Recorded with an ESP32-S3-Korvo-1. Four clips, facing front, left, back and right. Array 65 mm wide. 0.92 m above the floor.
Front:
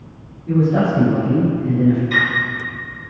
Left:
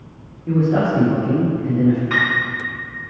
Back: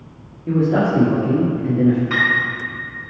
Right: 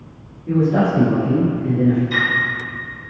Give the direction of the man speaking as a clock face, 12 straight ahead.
7 o'clock.